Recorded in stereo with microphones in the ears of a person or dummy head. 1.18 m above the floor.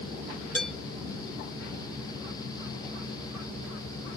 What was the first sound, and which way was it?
Dishes clattering, 5° left (ahead or behind).